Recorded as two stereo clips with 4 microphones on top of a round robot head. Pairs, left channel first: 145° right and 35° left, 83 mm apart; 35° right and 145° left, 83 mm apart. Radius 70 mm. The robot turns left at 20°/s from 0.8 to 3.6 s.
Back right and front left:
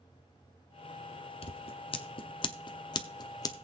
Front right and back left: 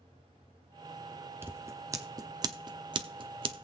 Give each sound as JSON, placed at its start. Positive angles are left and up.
{"t": 1.4, "sound": "scissors", "azimuth_deg": -150, "distance_m": 0.8}